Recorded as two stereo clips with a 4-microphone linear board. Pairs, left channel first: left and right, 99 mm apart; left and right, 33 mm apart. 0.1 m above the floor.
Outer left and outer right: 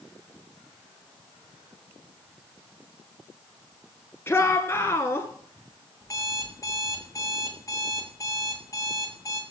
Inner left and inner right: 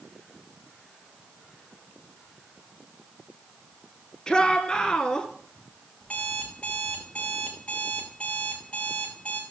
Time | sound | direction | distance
4.3 | a shout | 25° left (ahead or behind) | 1.5 m
6.0 | an alarm clock | 35° left (ahead or behind) | 3 m